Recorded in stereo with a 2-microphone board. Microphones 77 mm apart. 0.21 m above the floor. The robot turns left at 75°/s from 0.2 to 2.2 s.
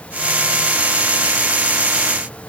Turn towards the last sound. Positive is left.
No sound to turn to.